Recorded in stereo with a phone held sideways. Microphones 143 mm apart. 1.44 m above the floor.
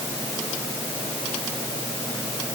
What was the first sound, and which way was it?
Only background noise.